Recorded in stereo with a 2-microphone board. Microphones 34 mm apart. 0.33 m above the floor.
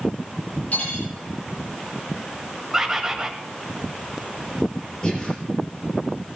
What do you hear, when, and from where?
0.7 s cutlery clinking: 50° left (ahead or behind), 7.5 m
2.7 s a bird: 15° right (ahead or behind), 1.5 m
5.0 s breathing: 25° left (ahead or behind), 6.5 m